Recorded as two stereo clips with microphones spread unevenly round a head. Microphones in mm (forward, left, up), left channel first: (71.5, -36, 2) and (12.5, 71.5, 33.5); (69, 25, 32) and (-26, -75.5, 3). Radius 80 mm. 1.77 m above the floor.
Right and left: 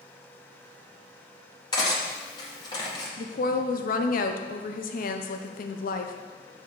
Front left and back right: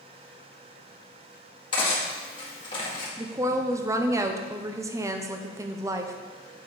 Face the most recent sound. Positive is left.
turn(degrees=-60)